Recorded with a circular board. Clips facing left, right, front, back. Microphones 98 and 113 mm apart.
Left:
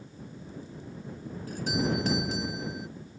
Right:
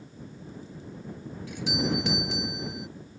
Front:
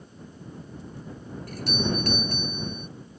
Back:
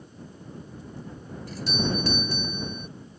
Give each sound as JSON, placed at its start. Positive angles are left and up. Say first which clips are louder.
{"t": 1.5, "sound": "a doorbell", "louder": "even, even", "azimuth_deg": 40}